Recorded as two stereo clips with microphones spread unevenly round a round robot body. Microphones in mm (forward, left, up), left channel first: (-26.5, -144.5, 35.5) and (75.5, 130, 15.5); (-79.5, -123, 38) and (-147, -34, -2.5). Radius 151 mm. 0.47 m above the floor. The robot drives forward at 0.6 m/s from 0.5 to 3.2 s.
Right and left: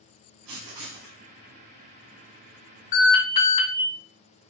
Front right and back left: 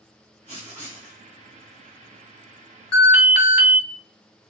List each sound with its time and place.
0.5 s writing: 50° left, 2.5 m; by 1.2 s 55° left, 2 m
2.9 s an alarm: 135° right, 3 m; by 3.8 s 140° right, 3 m